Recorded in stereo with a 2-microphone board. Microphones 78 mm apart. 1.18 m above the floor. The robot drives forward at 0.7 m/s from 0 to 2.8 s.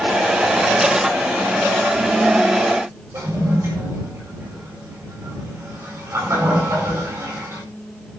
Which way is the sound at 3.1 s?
35° right (ahead or behind).